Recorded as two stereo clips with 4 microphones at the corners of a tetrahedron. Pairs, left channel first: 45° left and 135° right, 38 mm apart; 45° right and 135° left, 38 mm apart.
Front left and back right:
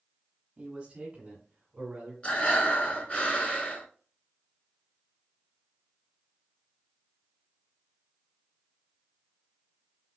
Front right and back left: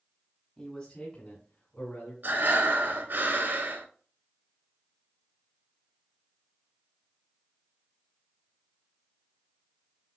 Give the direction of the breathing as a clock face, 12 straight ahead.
9 o'clock.